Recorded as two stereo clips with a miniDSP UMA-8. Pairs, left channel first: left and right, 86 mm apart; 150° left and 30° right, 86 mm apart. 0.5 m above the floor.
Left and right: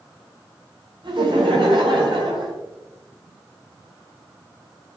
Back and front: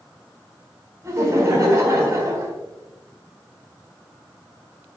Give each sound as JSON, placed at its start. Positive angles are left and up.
{"t": 1.0, "sound": "laughter", "azimuth_deg": -80, "distance_m": 4.5}